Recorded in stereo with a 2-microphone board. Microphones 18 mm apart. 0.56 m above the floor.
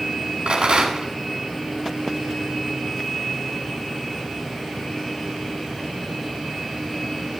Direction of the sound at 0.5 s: 75° right (ahead or behind).